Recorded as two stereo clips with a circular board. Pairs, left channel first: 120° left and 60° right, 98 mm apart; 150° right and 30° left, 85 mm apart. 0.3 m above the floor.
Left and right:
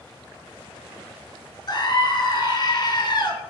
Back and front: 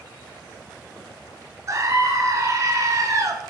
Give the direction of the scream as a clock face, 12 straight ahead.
9 o'clock.